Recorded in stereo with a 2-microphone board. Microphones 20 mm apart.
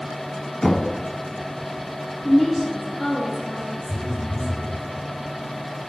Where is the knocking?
25° left (ahead or behind), 1.3 m.